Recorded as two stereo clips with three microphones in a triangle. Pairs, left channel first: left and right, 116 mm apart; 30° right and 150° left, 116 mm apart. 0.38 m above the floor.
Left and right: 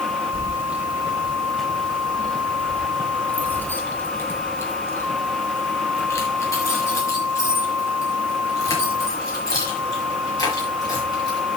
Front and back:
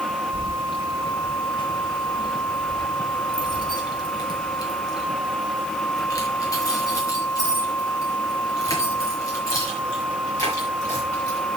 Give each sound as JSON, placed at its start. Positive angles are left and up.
{"t": 0.3, "sound": "keys jangling", "azimuth_deg": -25, "distance_m": 1.3}